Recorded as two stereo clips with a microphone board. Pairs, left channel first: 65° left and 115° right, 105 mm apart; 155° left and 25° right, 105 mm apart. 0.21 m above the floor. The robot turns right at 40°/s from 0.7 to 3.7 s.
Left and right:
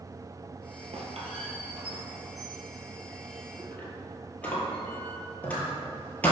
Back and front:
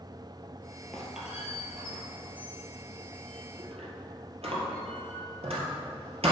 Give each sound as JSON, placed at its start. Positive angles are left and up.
{"t": 0.9, "sound": "a squeak", "azimuth_deg": -120, "distance_m": 2.0}